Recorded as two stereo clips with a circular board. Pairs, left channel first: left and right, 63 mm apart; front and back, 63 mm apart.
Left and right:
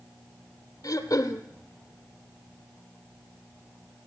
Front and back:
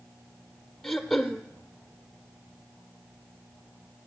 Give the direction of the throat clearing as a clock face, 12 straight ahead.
9 o'clock.